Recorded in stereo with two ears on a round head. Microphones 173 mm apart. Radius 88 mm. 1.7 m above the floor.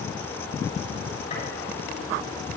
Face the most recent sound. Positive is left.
turn(degrees=35)  # may be behind; listen again after turning